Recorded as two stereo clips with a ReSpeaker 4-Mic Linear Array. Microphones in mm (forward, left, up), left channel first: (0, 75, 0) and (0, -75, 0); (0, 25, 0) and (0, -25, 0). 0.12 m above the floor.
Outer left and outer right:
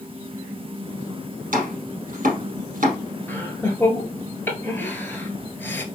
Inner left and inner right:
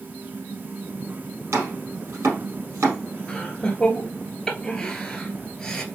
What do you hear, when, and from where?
1.5 s chopping: 65° right (ahead or behind), 3.5 m
3.3 s laughter: 15° left (ahead or behind), 1.7 m